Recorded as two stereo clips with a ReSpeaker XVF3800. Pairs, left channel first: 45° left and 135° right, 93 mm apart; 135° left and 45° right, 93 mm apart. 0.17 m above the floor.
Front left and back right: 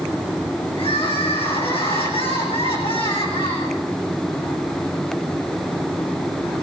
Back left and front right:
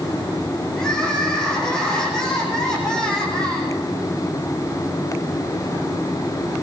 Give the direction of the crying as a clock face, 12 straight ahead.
10 o'clock.